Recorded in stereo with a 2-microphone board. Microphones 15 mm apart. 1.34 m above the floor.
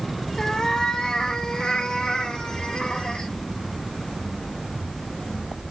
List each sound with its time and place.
0.4 s a cat meowing: 45° left (ahead or behind), 2 m; by 3.3 s 80° left, 3.5 m